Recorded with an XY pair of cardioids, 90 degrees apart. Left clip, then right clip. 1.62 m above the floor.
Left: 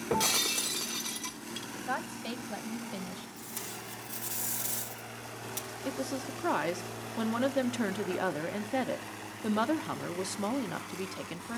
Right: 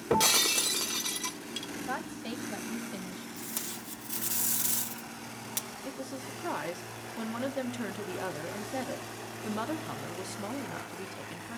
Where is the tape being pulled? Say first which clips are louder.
Right 2 dB; 45° right, 1.9 m.